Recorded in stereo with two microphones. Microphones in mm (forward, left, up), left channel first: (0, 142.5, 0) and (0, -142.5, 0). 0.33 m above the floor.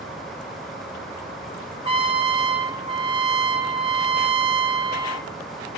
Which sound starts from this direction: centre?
A trumpet, at 1.8 s.